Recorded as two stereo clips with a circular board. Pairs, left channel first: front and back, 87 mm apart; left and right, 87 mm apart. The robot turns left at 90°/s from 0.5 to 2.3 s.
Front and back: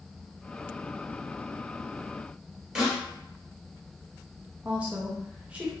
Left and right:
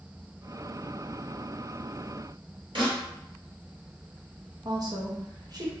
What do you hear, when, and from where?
2.8 s a snare drum: 100° right, 1.7 m
4.7 s a woman speaking: 110° right, 0.8 m